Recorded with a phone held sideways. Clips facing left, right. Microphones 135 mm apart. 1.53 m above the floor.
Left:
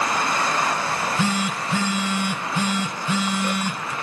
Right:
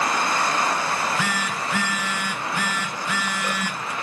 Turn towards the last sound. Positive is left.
turn(degrees=25)  # may be behind; listen again after turning